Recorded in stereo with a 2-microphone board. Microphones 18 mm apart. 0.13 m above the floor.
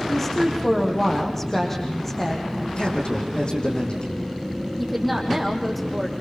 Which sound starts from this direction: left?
A man speaking, at 2.8 s.